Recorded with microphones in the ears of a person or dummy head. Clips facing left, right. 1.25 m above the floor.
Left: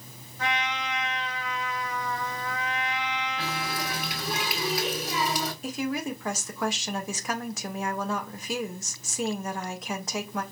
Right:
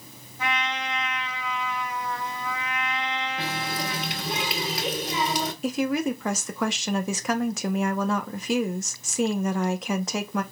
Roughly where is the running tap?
Right.